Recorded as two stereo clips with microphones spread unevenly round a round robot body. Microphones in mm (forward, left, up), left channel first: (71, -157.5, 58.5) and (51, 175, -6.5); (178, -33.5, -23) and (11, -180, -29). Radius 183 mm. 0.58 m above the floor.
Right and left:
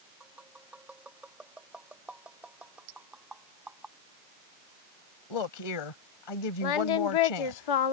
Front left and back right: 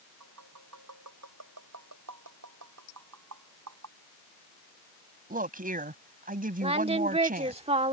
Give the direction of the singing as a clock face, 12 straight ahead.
3 o'clock.